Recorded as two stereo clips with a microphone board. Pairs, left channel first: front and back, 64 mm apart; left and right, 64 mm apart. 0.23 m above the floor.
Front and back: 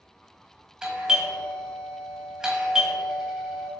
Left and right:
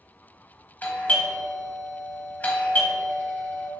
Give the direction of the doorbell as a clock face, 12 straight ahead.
8 o'clock.